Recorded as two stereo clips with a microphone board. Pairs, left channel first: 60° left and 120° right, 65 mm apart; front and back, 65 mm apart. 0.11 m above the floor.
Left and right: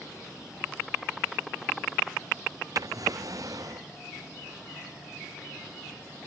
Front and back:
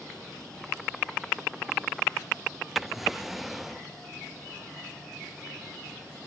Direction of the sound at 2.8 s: 90° right.